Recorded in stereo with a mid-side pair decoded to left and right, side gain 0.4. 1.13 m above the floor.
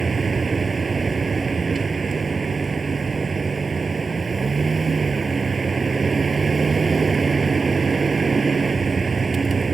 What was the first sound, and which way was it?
A vehicle, 35° right.